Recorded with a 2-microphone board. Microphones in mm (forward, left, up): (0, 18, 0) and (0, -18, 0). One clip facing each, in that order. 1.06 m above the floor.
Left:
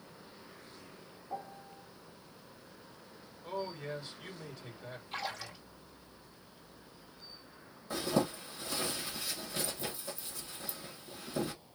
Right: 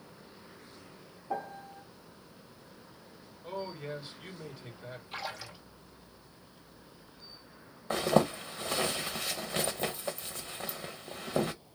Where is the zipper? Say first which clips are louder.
Right 6 dB; 55° right (ahead or behind), 1.1 m.